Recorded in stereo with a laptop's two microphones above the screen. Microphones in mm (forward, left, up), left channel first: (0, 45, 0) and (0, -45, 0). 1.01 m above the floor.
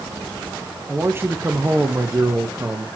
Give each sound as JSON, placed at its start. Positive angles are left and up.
{"t": 0.9, "sound": "a man speaking", "side_deg": -25, "distance_m": 0.8}